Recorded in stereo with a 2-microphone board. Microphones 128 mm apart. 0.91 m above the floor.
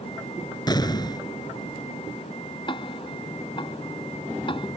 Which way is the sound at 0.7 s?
30° left (ahead or behind).